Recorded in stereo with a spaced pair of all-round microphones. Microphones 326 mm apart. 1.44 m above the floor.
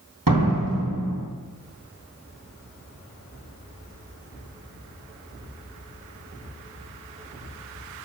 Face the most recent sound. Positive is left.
turn(degrees=-85)